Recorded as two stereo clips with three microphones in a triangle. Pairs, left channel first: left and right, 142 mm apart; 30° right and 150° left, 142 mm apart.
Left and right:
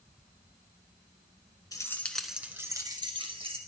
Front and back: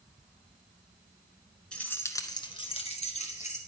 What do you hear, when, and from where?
1.7 s keys jangling: 45° left, 1.0 m; by 3.6 s 50° right, 1.7 m